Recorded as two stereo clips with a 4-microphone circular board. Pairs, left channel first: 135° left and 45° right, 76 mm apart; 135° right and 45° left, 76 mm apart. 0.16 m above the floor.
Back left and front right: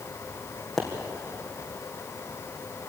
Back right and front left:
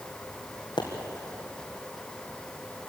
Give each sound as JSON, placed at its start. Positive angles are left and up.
{"t": 0.8, "sound": "a pop", "azimuth_deg": -135, "distance_m": 4.0}